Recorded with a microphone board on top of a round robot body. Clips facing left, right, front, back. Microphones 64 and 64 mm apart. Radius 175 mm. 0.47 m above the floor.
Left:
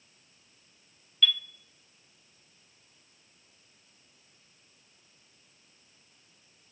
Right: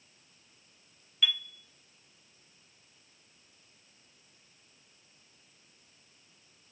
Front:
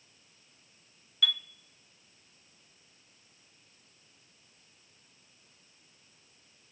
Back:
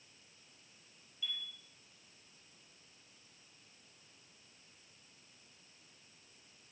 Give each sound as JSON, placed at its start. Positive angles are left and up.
{"t": 1.2, "sound": "a chime", "azimuth_deg": -10, "distance_m": 1.3}